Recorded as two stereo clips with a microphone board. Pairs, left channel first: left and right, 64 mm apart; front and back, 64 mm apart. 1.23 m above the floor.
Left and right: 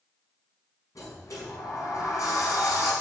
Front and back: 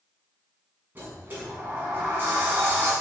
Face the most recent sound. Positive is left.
turn(degrees=120)